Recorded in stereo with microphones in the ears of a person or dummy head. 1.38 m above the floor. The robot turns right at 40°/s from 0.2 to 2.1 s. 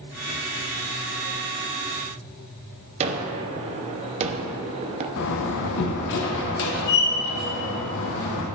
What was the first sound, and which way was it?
A gunshot, 35° right (ahead or behind).